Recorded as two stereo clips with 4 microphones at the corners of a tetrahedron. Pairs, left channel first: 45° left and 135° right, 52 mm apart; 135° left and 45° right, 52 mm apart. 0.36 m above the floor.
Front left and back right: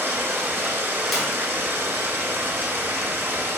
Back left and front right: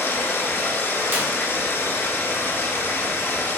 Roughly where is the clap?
Ahead right.